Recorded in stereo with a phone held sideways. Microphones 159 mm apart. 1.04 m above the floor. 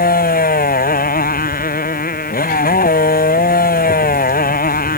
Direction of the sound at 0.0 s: 65° left (ahead or behind).